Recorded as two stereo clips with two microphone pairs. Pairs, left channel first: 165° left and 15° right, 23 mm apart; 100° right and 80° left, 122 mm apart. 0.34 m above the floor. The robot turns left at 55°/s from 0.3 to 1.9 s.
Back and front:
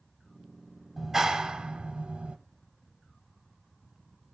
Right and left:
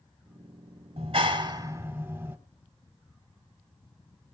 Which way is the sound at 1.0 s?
60° left.